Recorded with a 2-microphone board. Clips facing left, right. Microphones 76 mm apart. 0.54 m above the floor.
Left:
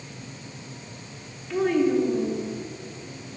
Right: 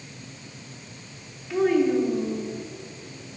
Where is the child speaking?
5° right (ahead or behind), 1.1 m.